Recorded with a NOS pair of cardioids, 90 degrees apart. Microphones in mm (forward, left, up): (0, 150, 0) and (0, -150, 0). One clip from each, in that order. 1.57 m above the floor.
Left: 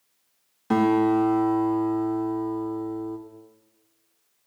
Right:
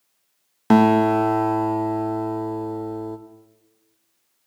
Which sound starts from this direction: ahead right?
A guitar, at 0.7 s.